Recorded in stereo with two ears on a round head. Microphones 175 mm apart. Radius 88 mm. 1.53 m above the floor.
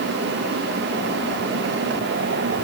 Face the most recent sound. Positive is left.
No sound to turn to.